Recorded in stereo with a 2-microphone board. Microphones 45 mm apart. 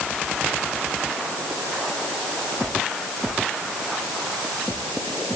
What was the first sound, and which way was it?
Only background noise.